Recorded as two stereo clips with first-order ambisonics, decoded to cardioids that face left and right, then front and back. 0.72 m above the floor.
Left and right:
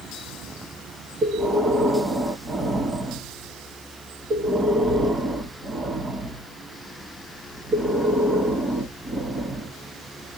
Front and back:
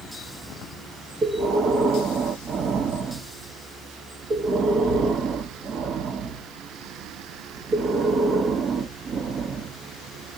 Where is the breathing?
155° right, 1.2 m.